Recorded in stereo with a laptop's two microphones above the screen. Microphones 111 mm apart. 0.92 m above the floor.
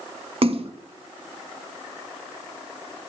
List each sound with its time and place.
0.4 s a splash: 55° right (ahead or behind), 1.4 m